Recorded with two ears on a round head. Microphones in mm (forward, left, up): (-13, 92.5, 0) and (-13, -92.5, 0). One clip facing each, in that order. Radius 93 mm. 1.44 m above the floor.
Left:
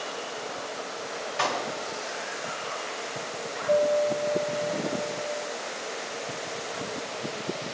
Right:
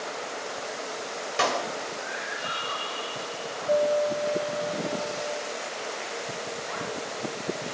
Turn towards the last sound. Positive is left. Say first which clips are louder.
# left 1 dB
turn(degrees=-10)  # may be behind; listen again after turning